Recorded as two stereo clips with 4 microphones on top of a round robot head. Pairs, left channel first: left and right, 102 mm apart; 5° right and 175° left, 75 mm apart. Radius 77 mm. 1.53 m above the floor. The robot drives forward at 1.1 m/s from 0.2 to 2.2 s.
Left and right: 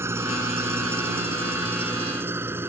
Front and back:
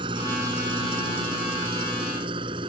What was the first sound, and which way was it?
An engine running, 155° right.